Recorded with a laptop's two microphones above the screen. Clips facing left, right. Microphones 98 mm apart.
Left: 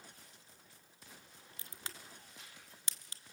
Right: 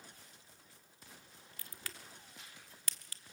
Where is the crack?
25° left (ahead or behind), 1.0 m.